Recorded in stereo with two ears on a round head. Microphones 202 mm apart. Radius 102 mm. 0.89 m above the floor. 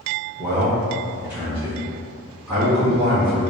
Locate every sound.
0.4 s a man speaking: 10° right (ahead or behind), 0.8 m